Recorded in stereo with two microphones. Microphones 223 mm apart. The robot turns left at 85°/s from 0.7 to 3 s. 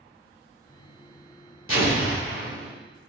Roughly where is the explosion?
Left.